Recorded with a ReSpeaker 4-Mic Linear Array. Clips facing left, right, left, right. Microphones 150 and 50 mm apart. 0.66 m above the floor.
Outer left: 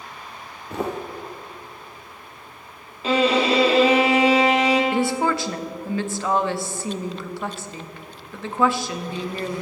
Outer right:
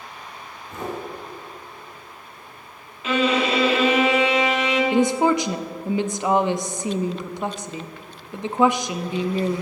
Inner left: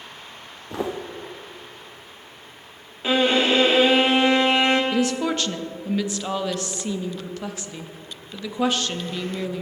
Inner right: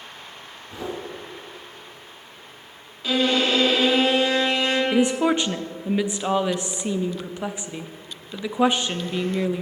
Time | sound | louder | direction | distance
0.7 | footsteps | outer left 4 dB, inner left 4 dB | 75° left (ahead or behind) | 2 m
3.0 | a violin | outer left 2 dB, inner left 2 dB | 35° left (ahead or behind) | 1.6 m
4.9 | a woman speaking | outer right 3 dB, inner right 3 dB | 20° right (ahead or behind) | 0.5 m